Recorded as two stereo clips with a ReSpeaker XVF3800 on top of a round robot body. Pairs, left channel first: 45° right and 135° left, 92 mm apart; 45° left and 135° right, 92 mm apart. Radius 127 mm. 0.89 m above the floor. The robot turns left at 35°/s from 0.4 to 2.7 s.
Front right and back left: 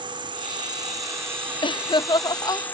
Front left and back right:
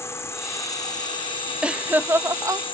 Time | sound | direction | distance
0.0 | an insect | 105° left | ?
1.6 | laughter | 55° right | ?